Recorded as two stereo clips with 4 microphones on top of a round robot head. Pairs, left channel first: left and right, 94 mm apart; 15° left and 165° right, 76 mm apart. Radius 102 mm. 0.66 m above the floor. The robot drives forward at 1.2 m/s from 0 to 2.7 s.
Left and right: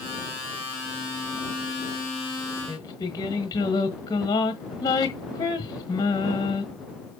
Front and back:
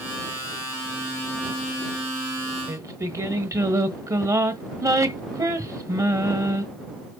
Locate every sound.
2.7 s singing: 145° left, 1.4 m